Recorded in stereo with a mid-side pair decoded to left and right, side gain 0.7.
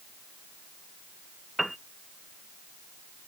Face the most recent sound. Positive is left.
turn(degrees=-5)